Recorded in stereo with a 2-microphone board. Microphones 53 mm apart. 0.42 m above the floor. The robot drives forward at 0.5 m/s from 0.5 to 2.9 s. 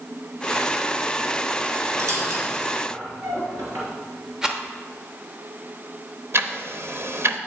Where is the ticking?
60° right (ahead or behind), 0.7 m.